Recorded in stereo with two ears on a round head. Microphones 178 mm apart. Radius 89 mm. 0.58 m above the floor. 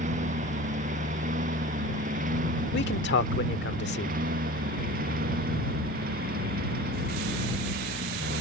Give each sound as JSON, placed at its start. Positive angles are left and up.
{"t": 0.0, "sound": "a lawn mower", "side_deg": -40}
{"t": 2.7, "sound": "a man speaking", "side_deg": 60}